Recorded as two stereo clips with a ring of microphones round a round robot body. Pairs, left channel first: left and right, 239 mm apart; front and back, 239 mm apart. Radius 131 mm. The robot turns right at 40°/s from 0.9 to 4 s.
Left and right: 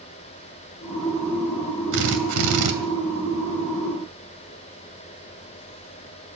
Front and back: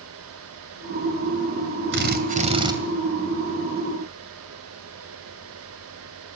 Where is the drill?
140° right, 2.5 m; by 2.8 s 105° right, 2.5 m.